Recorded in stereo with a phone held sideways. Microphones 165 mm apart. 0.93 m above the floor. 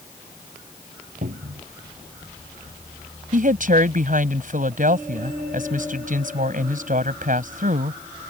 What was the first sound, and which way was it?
A cupboard door, 60° right (ahead or behind).